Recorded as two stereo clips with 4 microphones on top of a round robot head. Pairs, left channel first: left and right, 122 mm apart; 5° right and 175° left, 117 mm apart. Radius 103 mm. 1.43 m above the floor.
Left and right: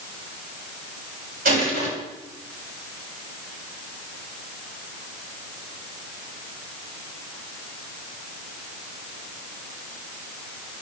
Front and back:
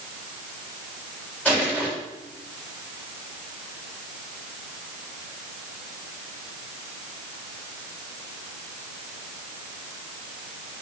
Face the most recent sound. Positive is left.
turn(degrees=-85)